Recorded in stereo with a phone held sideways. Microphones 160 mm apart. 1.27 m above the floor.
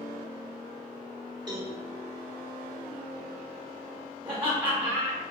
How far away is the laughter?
About 1.2 m.